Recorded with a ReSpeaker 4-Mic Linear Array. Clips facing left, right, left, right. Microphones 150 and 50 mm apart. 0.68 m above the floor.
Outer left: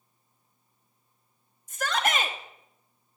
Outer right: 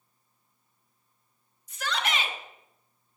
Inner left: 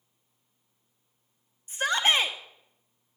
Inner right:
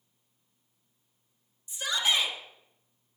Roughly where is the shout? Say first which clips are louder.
Outer left 4 dB, inner left 4 dB; left.